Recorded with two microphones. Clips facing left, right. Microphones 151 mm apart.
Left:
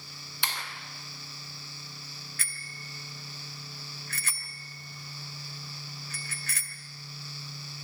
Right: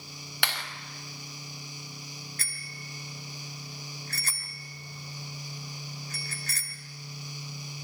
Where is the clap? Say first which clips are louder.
Right 2 dB; 75° right (ahead or behind), 4 m.